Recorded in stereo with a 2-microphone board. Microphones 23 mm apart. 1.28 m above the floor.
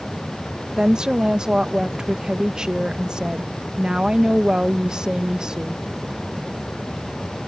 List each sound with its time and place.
0.8 s a woman speaking: 35° right (ahead or behind)